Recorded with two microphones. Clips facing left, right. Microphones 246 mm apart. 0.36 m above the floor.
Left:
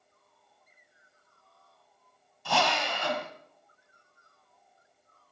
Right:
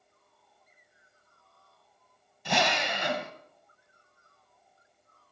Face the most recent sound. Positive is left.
turn(degrees=-20)  # may be behind; listen again after turning